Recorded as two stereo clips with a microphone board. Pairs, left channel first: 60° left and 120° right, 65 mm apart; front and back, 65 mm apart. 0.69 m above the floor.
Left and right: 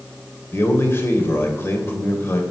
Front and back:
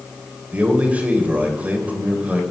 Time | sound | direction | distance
0.5 | a man speaking | 110° left | 3 m